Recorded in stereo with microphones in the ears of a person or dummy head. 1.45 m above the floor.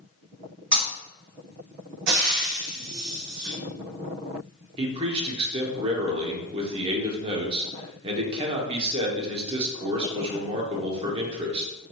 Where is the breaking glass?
50° right (ahead or behind), 1.8 m.